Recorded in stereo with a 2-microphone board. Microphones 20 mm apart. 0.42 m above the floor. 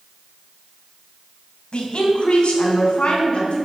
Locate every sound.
1.7 s a woman speaking: 50° left (ahead or behind), 3 m; by 3.6 s 55° left (ahead or behind), 4.5 m